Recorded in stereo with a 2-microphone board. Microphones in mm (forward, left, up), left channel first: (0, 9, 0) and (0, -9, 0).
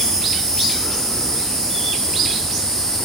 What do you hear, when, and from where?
0.0 s an insect: 55° left (ahead or behind), 5 m